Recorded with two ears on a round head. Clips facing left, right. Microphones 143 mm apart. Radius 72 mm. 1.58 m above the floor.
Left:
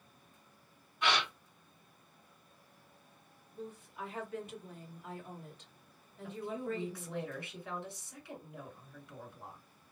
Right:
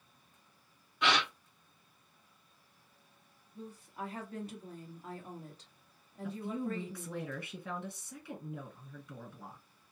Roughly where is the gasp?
Right.